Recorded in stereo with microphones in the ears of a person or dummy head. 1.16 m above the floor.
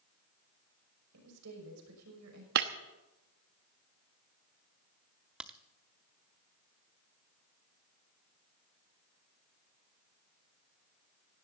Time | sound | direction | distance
1.1 | a woman speaking | 80° right | 6 m
2.5 | breaking glass | 50° right (ahead or behind) | 0.9 m
5.4 | a crack | 10° right (ahead or behind) | 0.7 m